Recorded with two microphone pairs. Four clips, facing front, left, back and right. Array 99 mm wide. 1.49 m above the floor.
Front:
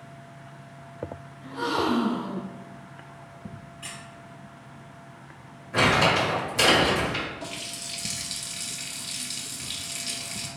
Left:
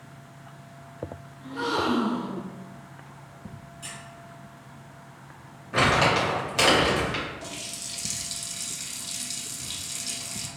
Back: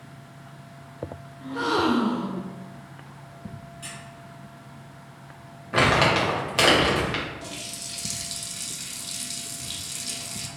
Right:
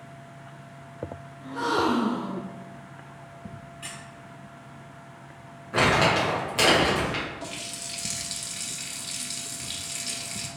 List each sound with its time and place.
1.4 s a gasp: 160° right, 0.6 m
3.8 s a squeak: 75° right, 1.1 m
5.7 s crumpling: 170° left, 1.2 m
7.4 s a running tap: 45° right, 0.5 m